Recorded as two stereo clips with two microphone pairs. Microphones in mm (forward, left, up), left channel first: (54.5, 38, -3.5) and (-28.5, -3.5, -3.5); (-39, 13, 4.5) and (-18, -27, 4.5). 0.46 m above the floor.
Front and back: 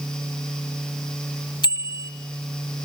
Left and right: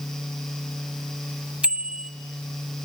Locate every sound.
1.6 s a bicycle bell: straight ahead, 2 m